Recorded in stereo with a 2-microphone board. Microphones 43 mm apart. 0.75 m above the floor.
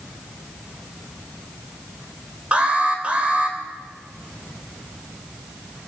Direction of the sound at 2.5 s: 25° right (ahead or behind).